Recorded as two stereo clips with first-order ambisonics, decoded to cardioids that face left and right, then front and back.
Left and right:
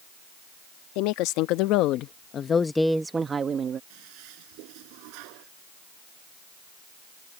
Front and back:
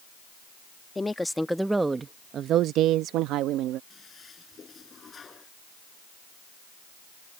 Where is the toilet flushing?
70° right.